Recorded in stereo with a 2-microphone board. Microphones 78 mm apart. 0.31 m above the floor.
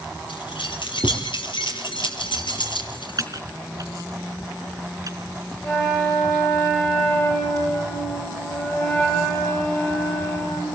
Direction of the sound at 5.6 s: 30° left (ahead or behind).